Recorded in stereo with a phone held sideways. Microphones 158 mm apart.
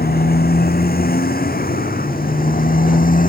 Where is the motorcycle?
75° left (ahead or behind); by 3.3 s 60° left (ahead or behind).